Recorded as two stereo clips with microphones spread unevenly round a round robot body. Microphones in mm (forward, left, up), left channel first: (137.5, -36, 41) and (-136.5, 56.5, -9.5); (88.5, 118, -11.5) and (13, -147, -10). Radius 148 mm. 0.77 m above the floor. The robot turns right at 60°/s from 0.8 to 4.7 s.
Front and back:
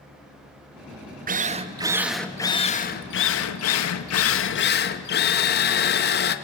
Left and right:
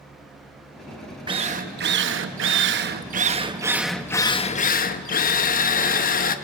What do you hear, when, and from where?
1.3 s a drill: 175° right, 1.0 m; by 6.3 s 30° left, 1.0 m